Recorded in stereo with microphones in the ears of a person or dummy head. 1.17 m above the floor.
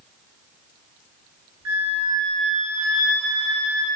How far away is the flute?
About 1.2 m.